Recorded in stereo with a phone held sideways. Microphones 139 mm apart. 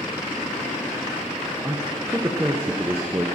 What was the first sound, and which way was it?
A man speaking, 15° right (ahead or behind).